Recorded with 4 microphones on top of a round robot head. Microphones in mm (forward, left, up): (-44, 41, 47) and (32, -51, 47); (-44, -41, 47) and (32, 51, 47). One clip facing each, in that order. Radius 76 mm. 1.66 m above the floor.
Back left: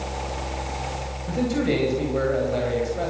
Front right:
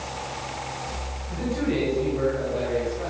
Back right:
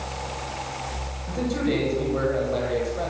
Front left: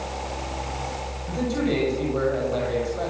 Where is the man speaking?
140° left, 9.5 m.